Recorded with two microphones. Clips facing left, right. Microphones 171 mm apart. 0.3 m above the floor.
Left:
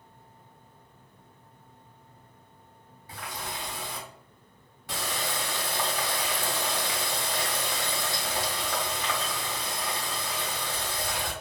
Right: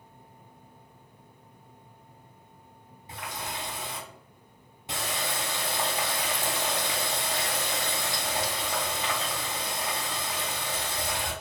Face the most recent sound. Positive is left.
turn(degrees=-20)  # may be behind; listen again after turning